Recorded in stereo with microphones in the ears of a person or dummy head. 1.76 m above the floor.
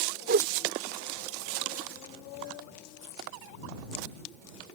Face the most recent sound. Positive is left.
turn(degrees=-55)  # may be behind; listen again after turning